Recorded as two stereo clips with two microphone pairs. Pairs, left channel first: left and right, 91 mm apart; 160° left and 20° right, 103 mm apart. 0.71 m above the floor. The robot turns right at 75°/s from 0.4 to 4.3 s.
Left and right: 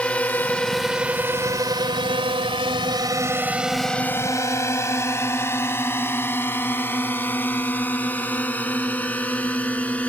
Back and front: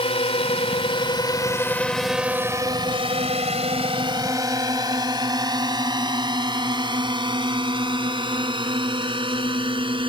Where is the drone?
165° left; by 10.1 s 15° left.